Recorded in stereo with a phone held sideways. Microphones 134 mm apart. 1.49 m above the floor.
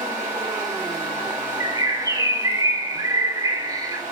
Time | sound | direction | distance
0.0 | a fan | 60° right (ahead or behind) | 3.5 m
1.6 | a bird | 30° right (ahead or behind) | 0.5 m